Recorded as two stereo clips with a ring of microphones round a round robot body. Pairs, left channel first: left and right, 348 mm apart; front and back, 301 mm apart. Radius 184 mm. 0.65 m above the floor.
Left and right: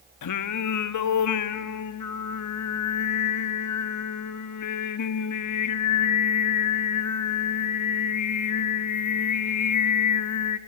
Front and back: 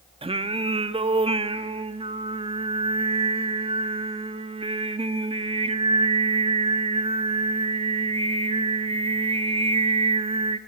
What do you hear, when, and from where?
0.2 s singing: 110° left, 1.1 m